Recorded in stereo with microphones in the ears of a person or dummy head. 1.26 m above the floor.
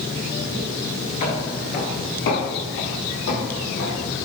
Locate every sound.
1.2 s footsteps: 20° left (ahead or behind), 1.3 m; by 4.2 s 70° left (ahead or behind), 4.5 m